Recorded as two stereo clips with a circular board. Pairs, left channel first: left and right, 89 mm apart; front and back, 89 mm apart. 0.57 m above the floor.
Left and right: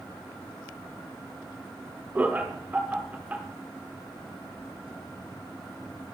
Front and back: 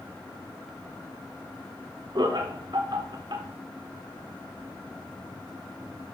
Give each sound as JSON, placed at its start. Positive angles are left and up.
{"t": 2.1, "sound": "laughter", "azimuth_deg": -160, "distance_m": 1.1}